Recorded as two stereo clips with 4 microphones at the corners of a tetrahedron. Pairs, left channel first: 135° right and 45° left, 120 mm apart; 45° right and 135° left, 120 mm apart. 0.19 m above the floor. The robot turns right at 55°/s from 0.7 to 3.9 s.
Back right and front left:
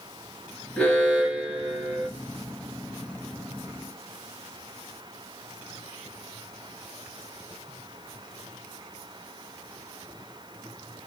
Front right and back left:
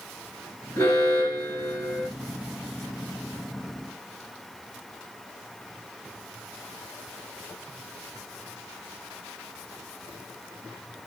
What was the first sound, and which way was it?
An alarm, 70° right.